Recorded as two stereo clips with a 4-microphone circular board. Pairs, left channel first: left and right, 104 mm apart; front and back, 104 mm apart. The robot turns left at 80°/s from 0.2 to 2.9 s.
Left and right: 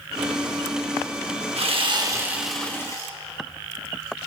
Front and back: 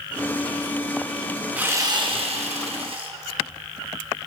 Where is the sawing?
105° right, 1.2 m; by 3.1 s 150° left, 1.2 m.